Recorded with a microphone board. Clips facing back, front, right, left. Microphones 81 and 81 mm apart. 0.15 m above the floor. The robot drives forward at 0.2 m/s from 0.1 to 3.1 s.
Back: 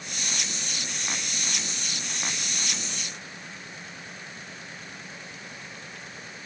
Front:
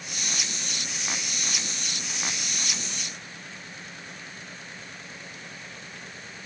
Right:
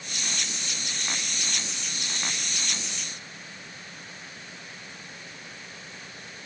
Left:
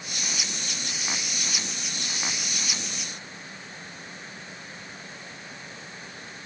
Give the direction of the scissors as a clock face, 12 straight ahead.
I don't hear scissors.